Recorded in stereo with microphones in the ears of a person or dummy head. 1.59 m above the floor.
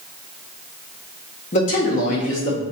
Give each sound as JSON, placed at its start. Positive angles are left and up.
{"t": 1.5, "sound": "a man speaking", "side_deg": 45, "distance_m": 0.7}